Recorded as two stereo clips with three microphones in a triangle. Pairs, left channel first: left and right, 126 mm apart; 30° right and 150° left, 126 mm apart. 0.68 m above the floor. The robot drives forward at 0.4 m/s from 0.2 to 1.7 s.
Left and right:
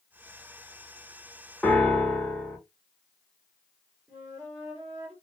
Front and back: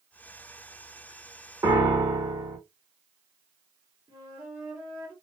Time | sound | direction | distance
1.6 | a piano | 165° left | 0.9 m
4.1 | a flute | 150° right | 1.7 m